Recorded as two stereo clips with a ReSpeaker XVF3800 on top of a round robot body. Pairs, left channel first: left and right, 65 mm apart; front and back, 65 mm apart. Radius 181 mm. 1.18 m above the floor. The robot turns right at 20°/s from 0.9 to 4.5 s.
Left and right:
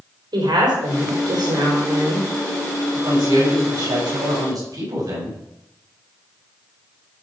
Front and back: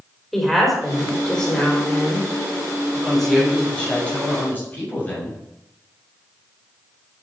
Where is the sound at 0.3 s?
90° right, 5 m; by 2.3 s 60° right, 5 m.